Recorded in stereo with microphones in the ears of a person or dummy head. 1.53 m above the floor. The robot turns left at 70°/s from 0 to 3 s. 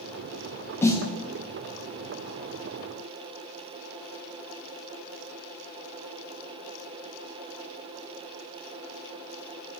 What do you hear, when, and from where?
0.8 s a snare drum: 15° left (ahead or behind), 1.1 m; by 1.1 s 35° left (ahead or behind), 1.1 m